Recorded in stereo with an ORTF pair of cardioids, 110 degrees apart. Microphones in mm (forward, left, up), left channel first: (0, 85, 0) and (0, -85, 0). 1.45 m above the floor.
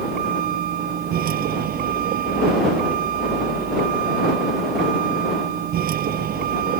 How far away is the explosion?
No explosion in this recording.